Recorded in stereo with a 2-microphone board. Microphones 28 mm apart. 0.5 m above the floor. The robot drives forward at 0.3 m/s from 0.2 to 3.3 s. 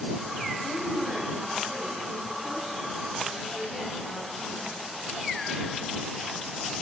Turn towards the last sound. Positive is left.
turn(degrees=10)  # may be behind; listen again after turning